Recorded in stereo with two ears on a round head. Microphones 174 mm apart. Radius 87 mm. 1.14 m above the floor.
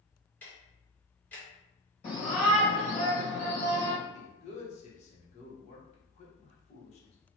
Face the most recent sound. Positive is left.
turn(degrees=35)  # may be behind; listen again after turning